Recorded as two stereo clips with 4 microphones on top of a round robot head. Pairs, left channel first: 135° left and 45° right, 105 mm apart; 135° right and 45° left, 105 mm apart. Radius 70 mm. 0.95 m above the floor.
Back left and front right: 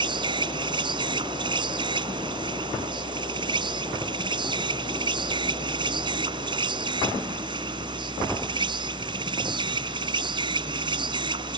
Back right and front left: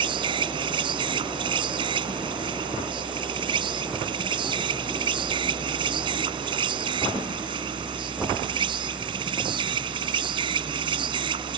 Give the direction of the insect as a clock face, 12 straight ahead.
12 o'clock.